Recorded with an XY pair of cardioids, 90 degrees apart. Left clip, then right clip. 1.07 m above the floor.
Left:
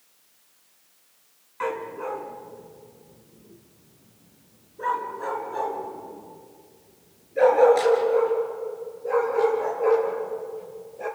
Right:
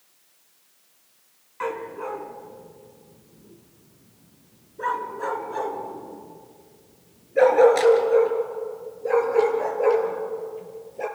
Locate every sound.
1.6 s a dog barking: straight ahead, 3 m; by 11.1 s 55° right, 7 m